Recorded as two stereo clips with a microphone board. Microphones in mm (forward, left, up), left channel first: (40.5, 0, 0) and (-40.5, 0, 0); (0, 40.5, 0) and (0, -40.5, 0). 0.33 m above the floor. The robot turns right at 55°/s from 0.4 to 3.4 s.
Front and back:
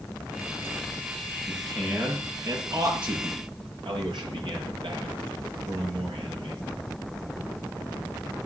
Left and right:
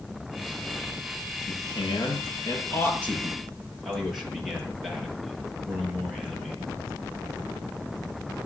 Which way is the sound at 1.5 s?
80° left.